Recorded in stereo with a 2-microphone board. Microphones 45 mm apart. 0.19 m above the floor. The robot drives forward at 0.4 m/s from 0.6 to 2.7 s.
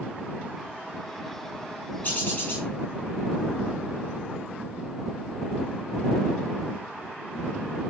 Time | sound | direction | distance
2.0 | a bird | 40° left (ahead or behind) | 9 m